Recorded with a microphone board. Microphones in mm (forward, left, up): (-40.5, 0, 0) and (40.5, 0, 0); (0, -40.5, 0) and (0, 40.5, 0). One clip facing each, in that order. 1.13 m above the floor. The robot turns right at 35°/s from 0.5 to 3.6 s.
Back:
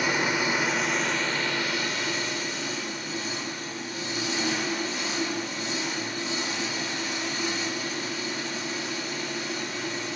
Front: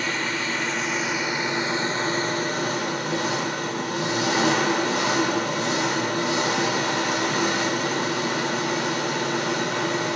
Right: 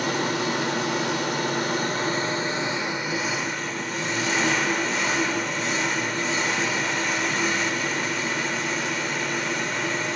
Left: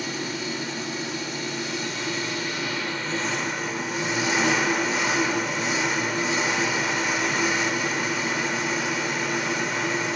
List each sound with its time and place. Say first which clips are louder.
0.0 s an engine running: back 1 dB, right 6 dB; 105° right, 1.3 m; by 10.2 s 5° left, 1.3 m